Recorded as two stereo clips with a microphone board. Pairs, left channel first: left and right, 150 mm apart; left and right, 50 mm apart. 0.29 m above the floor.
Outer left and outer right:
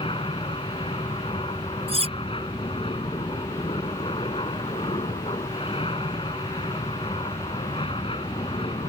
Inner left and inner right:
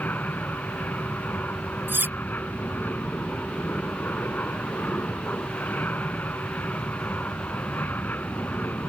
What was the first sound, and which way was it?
An aircraft, 35° left (ahead or behind).